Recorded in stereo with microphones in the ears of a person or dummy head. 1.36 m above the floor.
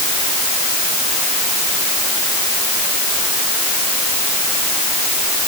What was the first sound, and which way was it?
Only background noise.